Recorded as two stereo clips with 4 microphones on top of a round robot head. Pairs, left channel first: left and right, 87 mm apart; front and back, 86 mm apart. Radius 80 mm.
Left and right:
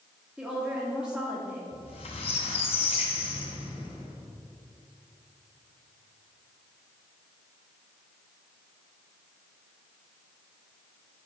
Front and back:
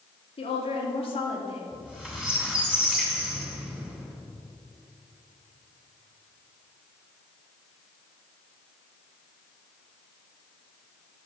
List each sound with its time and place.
0.4 s a woman speaking: 10° right, 2 m
1.7 s a squeak: 95° left, 3 m